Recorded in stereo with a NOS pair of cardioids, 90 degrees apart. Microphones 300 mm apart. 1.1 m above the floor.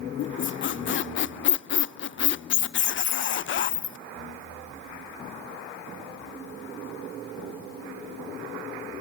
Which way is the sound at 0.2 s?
40° left.